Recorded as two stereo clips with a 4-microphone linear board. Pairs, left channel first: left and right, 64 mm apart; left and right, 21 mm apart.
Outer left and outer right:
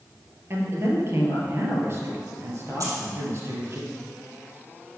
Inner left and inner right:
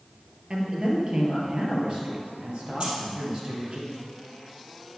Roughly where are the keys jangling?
Right.